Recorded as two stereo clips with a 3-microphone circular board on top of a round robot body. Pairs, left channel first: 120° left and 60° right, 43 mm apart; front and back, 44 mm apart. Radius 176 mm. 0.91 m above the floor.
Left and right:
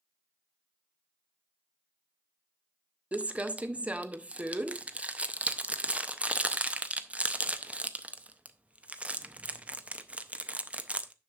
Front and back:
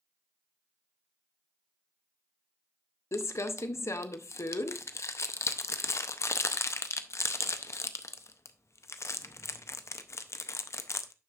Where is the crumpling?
Straight ahead, 0.7 m.